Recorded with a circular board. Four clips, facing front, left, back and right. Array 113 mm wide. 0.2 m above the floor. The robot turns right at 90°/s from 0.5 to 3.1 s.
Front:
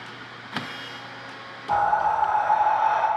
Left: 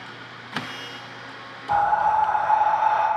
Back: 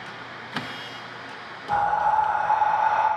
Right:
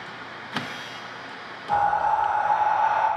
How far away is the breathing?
About 1.8 m.